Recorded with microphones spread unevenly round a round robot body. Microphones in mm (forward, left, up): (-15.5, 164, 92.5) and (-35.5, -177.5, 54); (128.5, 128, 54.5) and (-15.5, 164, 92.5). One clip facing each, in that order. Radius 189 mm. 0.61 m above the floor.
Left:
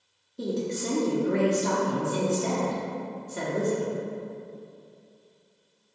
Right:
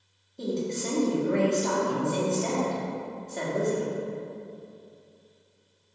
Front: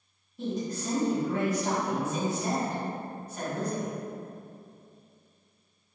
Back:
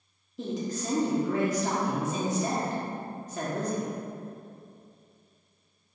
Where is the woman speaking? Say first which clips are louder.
Even, even; 165° left, 1.2 m.